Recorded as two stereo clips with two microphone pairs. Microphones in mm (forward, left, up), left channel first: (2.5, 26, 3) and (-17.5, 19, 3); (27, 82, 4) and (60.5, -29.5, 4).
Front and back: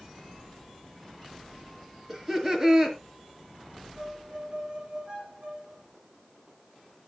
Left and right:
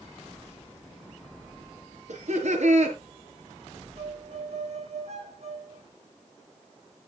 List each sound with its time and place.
2.1 s laughter: 85° right, 4.5 m
4.0 s a violin: 105° right, 4 m